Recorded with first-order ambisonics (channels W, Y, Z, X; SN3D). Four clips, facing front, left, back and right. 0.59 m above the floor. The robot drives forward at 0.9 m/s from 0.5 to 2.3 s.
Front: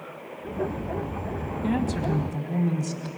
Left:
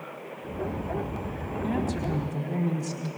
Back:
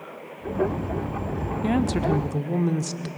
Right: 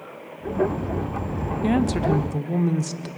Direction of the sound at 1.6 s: 115° right.